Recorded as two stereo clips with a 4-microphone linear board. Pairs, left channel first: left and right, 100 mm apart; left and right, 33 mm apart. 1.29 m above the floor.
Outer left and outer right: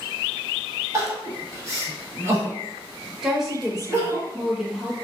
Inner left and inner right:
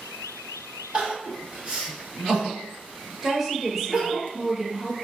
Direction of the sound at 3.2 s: 5° right (ahead or behind).